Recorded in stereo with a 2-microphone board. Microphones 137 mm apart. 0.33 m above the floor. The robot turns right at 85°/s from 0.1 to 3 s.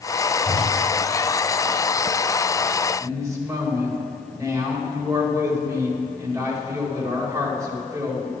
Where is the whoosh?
15° right (ahead or behind), 1.1 m; by 0.7 s 35° right (ahead or behind), 1.1 m.